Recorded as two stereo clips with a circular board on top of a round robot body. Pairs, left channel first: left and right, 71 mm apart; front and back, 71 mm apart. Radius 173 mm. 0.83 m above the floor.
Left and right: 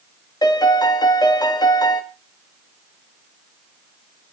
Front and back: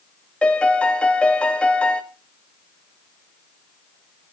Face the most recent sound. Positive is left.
turn(degrees=75)